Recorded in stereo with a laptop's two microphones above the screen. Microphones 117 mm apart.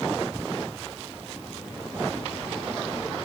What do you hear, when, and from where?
Only background noise.